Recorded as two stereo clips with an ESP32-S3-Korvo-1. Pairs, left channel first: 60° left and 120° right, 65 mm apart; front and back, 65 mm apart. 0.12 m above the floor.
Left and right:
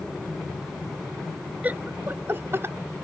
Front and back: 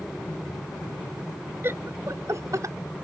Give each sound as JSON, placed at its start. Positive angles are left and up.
{"t": 1.6, "sound": "laughter", "azimuth_deg": -170}